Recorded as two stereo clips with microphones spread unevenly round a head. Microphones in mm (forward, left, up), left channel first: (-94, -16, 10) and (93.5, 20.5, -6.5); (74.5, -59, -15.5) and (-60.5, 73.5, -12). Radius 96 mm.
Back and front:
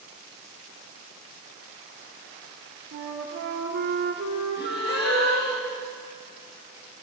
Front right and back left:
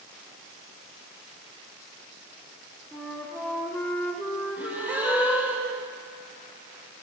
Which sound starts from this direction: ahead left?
A flute, at 2.9 s.